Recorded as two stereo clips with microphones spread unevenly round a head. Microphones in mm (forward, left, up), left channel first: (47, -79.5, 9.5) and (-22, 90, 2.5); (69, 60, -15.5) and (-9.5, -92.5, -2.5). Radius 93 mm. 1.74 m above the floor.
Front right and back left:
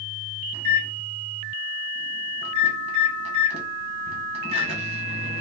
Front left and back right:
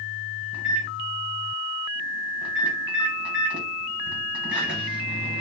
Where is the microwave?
165° left, 1.1 m.